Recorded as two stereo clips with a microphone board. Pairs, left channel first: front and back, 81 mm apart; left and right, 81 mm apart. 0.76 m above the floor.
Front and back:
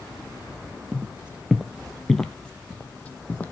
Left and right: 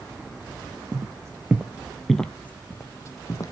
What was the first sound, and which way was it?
Footsteps, 110° right.